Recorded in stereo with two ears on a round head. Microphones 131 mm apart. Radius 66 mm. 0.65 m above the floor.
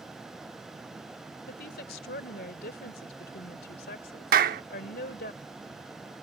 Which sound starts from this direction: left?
A woman speaking, at 1.5 s.